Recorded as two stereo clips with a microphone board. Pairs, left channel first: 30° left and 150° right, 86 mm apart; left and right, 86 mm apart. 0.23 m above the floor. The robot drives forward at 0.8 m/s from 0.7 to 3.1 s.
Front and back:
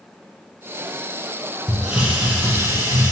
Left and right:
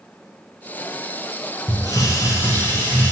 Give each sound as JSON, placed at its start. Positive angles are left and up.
{"t": 1.7, "sound": "a hiss", "azimuth_deg": 125, "distance_m": 1.4}